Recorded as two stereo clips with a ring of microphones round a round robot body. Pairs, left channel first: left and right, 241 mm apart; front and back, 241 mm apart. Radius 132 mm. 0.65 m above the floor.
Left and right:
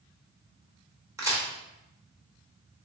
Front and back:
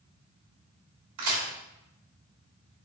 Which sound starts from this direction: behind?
A crack, at 1.2 s.